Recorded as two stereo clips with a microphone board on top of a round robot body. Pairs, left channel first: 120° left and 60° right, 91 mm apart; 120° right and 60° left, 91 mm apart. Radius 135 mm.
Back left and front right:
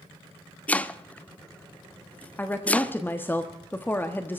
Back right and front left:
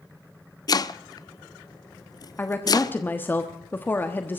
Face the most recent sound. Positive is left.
turn(degrees=180)